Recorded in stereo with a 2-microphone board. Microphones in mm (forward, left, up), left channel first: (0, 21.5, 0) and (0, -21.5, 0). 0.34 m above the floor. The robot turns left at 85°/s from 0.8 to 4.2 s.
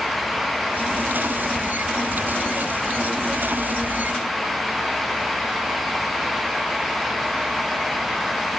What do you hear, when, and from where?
Only background noise.